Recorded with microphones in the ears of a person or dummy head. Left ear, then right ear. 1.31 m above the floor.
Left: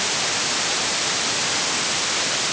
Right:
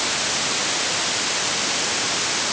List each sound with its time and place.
Only background noise.